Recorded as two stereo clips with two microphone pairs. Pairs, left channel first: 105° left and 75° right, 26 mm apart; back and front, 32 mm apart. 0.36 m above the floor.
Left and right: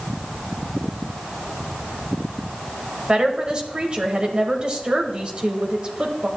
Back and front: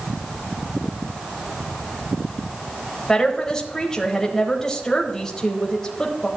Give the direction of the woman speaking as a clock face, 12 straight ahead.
4 o'clock.